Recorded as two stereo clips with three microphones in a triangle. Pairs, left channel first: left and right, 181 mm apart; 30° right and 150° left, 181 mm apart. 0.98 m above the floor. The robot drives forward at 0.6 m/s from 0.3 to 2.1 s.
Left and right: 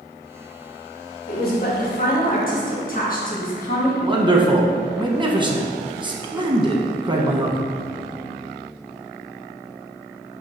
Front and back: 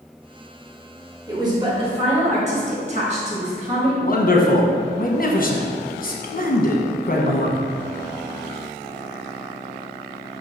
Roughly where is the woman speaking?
Left.